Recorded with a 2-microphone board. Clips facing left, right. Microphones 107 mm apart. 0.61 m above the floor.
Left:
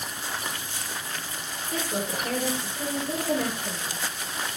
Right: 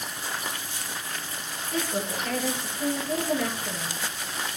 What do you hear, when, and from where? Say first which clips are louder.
1.7 s a woman speaking: right 1 dB; 30° left (ahead or behind), 9 m